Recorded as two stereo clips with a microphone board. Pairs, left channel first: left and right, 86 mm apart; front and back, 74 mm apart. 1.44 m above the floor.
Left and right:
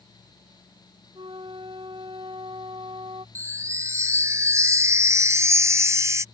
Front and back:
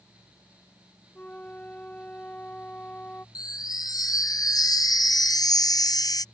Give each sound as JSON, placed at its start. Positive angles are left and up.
{"t": 1.1, "sound": "a flute", "azimuth_deg": -70}
{"t": 3.4, "sound": "a chime", "azimuth_deg": -30}